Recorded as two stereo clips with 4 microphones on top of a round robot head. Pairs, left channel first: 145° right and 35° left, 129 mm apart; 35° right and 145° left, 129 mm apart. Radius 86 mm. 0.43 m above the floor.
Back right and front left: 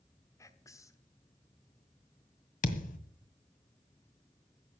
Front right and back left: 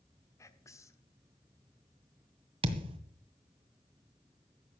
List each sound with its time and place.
0.4 s whispering: 90° right, 1.1 m
2.6 s a thud: 165° right, 1.7 m